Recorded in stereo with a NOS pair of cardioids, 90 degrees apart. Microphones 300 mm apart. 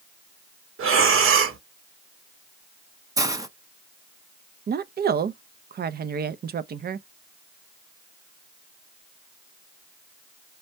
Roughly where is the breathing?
Ahead right.